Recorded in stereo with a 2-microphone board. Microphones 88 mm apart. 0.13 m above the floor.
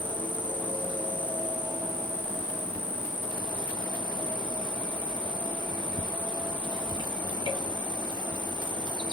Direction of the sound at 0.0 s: 70° left (ahead or behind).